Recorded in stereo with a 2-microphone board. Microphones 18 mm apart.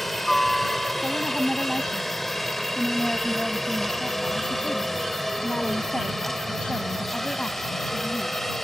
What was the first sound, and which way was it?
A helicopter, centre (ahead or behind).